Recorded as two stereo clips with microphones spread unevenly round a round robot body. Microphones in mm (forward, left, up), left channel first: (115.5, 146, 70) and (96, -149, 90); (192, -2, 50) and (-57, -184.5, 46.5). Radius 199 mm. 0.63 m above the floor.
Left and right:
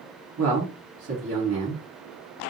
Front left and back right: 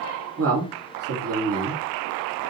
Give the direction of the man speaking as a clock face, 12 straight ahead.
4 o'clock.